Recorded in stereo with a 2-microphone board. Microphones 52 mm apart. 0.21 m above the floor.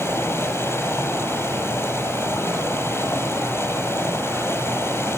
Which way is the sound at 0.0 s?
50° left (ahead or behind).